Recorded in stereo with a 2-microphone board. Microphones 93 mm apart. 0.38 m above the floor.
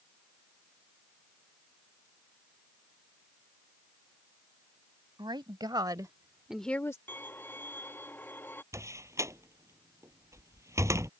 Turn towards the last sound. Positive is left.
turn(degrees=-30)  # may be behind; listen again after turning